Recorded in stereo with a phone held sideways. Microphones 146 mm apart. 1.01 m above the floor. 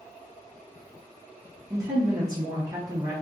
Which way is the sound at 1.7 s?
20° right (ahead or behind).